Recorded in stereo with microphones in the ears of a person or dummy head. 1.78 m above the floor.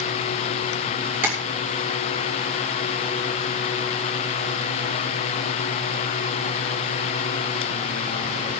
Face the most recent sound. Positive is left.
turn(degrees=-5)  # may be behind; listen again after turning